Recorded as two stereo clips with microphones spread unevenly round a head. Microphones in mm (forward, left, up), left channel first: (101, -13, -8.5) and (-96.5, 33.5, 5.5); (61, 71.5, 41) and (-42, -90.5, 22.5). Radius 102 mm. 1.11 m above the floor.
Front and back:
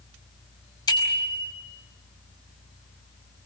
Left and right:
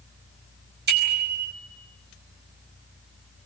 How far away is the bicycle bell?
About 5 m.